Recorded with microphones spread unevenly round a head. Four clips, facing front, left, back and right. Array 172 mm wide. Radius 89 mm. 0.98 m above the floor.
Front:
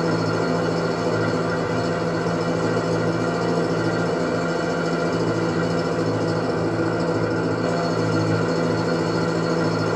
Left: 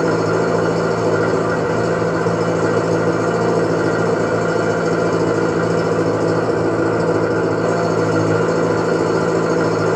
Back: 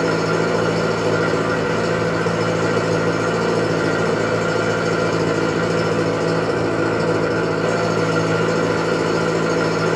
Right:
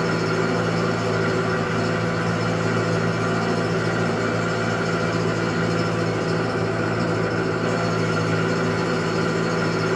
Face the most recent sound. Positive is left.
turn(degrees=100)